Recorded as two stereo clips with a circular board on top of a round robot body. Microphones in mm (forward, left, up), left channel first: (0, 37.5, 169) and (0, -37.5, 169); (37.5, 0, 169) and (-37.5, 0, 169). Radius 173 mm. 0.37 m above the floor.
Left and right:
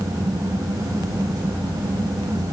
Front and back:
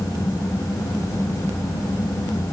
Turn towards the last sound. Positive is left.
No sound to turn to.